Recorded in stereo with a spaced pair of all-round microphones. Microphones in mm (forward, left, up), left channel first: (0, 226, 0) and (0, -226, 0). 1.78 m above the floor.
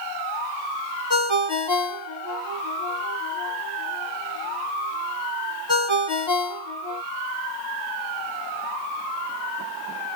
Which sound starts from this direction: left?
A ringtone, at 1.1 s.